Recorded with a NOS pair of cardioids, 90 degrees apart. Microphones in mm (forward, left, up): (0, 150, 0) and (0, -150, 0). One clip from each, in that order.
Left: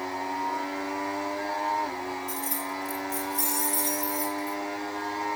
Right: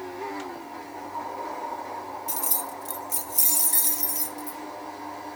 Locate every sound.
2.3 s keys jangling: 30° right, 0.7 m; by 4.6 s 55° right, 1.9 m